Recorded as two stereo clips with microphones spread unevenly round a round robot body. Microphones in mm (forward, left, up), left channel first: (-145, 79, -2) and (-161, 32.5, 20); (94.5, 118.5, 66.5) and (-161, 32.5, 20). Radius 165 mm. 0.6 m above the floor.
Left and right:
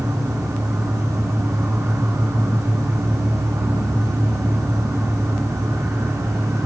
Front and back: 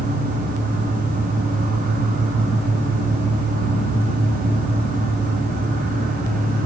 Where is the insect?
120° right, 2.5 m.